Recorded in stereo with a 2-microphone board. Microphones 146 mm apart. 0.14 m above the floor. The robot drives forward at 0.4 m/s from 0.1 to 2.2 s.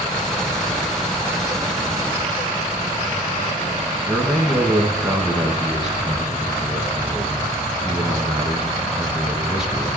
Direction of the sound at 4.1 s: 5° right (ahead or behind).